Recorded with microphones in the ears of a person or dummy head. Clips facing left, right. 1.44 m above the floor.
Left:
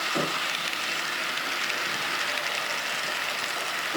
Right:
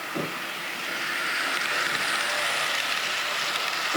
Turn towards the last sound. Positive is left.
No sound to turn to.